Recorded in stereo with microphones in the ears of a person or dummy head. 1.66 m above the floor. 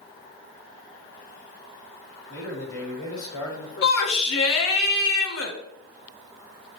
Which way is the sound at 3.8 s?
75° left (ahead or behind).